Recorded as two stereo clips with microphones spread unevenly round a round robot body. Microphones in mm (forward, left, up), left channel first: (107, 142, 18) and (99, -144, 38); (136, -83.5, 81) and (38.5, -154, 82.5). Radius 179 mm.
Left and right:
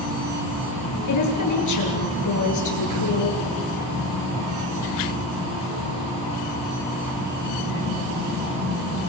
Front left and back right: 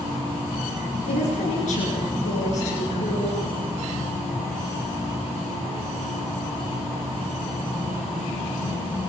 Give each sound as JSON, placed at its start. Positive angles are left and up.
{"t": 1.1, "sound": "a woman speaking", "azimuth_deg": 75, "distance_m": 9.0}